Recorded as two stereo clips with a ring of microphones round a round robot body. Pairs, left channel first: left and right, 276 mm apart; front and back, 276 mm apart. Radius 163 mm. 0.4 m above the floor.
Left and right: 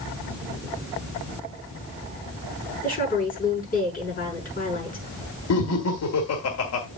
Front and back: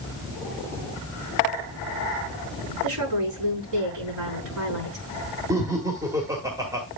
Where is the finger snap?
I don't hear a finger snap.